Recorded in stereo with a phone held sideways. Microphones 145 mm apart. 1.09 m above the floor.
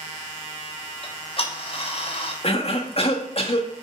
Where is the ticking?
45° left (ahead or behind), 1.1 m.